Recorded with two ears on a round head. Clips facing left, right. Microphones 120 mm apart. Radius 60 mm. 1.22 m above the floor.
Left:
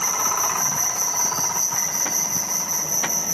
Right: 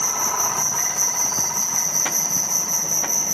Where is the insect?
15° left (ahead or behind), 1.7 m.